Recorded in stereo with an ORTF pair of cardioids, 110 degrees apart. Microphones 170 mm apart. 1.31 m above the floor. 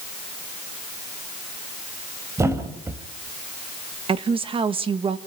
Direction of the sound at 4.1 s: 35° right.